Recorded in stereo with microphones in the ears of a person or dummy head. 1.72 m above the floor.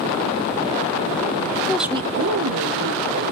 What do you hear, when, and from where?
1.7 s a woman speaking: 15° left (ahead or behind), 0.6 m; by 3.3 s 75° right (ahead or behind), 2.0 m